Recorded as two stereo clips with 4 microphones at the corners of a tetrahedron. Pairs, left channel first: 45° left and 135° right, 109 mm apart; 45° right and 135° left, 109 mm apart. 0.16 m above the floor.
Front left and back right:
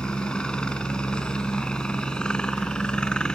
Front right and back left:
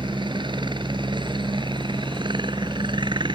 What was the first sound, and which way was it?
A helicopter, 125° left.